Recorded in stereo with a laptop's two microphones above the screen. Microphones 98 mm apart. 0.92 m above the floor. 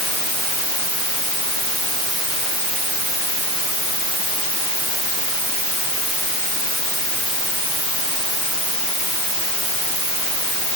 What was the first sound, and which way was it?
Only background noise.